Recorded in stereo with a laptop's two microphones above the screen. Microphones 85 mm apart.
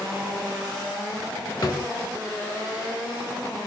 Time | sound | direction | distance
1.6 | a drawer | 55° left (ahead or behind) | 1.0 m